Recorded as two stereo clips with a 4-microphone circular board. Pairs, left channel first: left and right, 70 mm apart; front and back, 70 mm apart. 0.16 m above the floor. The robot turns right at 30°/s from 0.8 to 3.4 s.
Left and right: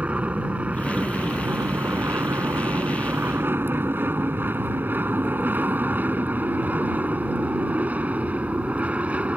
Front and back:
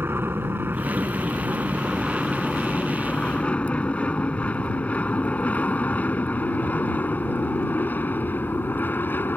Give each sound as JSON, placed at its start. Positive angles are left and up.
{"t": 0.0, "sound": "an aircraft", "azimuth_deg": -150}